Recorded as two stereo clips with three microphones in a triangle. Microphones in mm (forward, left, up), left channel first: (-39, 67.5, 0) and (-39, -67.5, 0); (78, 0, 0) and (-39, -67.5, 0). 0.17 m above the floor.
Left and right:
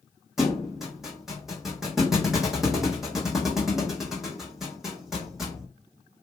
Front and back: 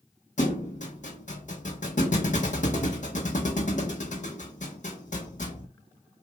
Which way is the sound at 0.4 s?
Straight ahead.